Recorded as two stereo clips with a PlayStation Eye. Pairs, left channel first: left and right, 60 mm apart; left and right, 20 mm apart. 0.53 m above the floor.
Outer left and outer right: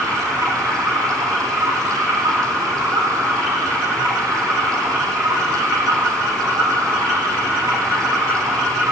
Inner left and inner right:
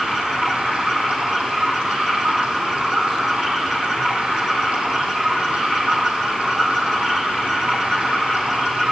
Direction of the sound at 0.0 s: 80° right.